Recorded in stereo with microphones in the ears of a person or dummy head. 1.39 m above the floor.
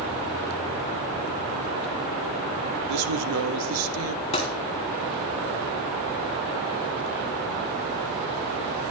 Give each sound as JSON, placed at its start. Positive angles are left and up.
{"t": 2.9, "sound": "a man speaking", "side_deg": -80, "distance_m": 1.9}
{"t": 4.3, "sound": "a gunshot", "side_deg": 30, "distance_m": 2.5}